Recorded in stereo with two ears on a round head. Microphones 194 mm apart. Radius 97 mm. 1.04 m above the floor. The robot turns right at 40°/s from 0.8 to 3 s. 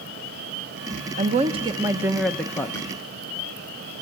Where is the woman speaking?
45° right, 0.8 m; by 2.9 s 20° left, 0.8 m.